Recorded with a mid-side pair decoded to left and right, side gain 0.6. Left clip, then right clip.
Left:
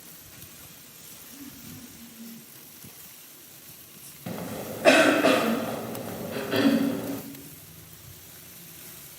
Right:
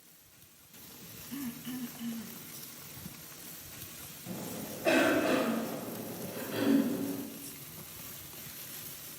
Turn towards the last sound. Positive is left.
turn(degrees=60)